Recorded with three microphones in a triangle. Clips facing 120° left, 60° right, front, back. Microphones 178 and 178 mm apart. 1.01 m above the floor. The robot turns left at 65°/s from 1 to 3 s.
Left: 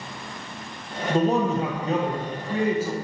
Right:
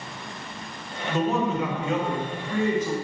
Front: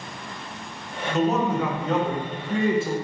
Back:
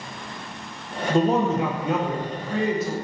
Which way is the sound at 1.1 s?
155° left.